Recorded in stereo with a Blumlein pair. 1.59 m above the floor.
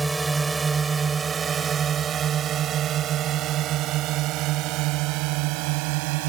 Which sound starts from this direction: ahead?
A drone, at 0.0 s.